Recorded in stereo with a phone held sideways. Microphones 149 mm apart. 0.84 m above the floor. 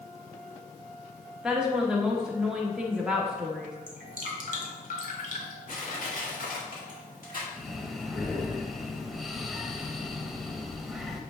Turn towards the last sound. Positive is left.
turn(degrees=0)  # may be behind; listen again after turning